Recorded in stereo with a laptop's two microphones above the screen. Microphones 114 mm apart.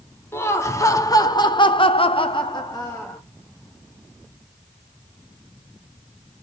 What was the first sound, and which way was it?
Laughter, 20° left (ahead or behind).